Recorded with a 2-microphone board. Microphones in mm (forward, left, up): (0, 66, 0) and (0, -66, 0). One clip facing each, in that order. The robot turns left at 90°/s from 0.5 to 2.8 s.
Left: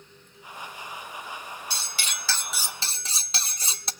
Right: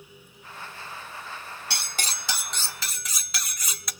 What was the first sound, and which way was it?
Cutlery clinking, 110° right.